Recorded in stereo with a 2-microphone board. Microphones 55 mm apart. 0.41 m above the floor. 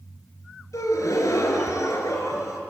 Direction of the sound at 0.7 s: 80° left.